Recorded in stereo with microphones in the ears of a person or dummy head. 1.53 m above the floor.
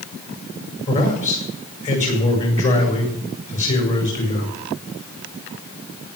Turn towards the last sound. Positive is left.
turn(degrees=35)  # may be behind; listen again after turning